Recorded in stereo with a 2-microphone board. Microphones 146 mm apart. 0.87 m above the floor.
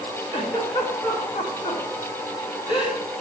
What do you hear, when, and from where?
0.3 s a giggle: 35° left (ahead or behind), 2.5 m